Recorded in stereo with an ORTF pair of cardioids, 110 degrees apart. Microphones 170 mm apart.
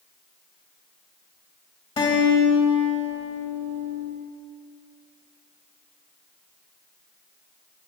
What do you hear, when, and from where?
2.0 s a guitar: 35° left, 2.5 m